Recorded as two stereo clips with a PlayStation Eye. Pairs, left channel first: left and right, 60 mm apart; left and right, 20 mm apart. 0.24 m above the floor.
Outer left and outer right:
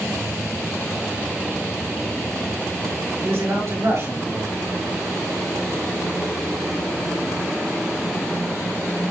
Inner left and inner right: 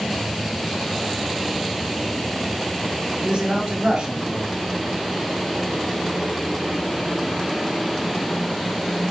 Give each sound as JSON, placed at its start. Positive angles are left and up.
{"t": 3.2, "sound": "a man speaking", "side_deg": -45, "distance_m": 5.0}